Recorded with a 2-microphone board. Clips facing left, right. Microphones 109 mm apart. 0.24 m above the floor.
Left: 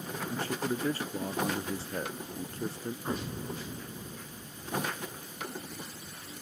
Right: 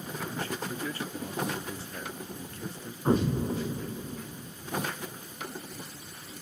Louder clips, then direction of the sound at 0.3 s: Left 4 dB; 35° left (ahead or behind).